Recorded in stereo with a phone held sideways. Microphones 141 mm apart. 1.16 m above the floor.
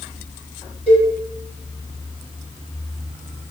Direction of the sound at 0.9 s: 45° right (ahead or behind).